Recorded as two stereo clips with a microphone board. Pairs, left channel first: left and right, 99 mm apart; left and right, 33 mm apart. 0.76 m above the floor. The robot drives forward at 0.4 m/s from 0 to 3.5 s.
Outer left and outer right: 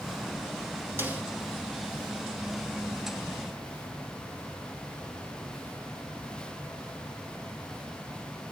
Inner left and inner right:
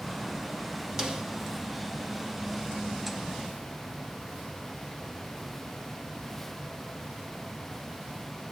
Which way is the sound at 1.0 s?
20° right (ahead or behind).